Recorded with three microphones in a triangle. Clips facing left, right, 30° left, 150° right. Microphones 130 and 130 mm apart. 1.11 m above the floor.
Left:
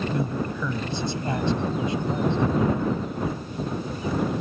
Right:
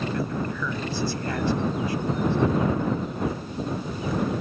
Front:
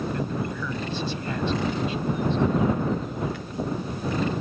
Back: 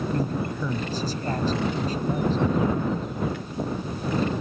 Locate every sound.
0.1 s a man speaking: 160° left